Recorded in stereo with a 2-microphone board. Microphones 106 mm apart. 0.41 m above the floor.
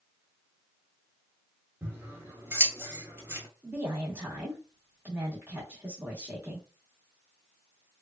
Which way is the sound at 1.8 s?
20° right (ahead or behind).